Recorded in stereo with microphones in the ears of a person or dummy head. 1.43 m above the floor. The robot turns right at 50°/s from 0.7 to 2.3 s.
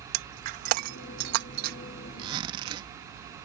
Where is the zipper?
35° right (ahead or behind); by 2.9 s 30° right (ahead or behind).